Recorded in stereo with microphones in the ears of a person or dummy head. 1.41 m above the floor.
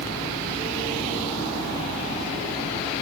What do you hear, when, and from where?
Only background noise.